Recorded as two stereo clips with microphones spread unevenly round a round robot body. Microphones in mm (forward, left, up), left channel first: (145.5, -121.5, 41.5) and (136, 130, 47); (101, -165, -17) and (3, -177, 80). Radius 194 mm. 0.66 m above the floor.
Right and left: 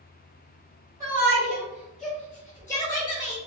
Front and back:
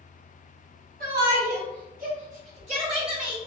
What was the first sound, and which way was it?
A shout, 170° left.